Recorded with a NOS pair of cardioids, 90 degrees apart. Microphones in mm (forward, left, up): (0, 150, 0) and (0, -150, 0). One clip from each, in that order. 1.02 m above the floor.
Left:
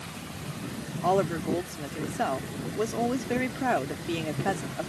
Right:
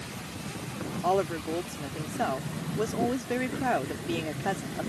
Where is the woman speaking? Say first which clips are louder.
Left 2 dB; 10° left.